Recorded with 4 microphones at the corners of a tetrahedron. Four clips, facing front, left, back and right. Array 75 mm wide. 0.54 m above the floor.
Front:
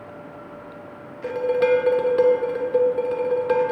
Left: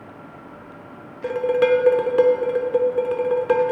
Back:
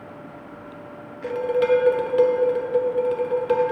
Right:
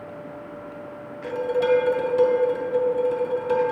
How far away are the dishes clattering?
About 0.9 m.